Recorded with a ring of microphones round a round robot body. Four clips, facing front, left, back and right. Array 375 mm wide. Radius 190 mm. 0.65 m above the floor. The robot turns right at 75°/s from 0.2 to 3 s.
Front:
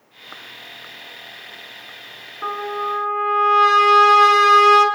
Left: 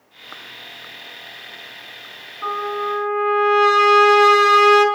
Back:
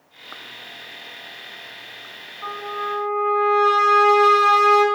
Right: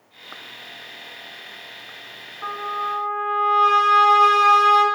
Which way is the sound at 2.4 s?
5° left.